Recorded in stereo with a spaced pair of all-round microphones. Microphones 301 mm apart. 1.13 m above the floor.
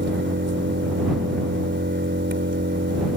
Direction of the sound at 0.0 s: 35° right (ahead or behind).